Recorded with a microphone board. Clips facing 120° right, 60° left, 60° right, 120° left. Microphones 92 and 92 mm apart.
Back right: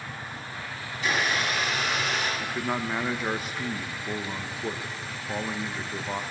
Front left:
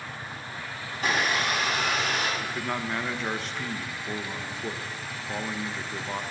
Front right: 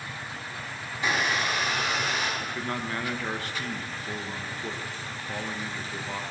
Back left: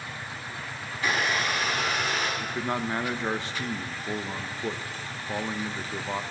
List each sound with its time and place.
0.9 s a blender: 10° left, 6 m
2.4 s a man speaking: 165° left, 0.9 m